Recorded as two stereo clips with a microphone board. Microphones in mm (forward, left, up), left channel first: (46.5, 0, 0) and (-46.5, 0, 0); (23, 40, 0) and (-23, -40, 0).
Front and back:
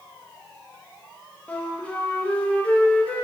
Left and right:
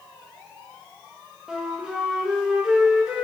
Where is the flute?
50° right, 0.8 m.